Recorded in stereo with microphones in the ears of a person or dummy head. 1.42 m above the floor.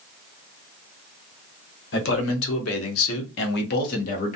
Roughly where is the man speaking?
Left.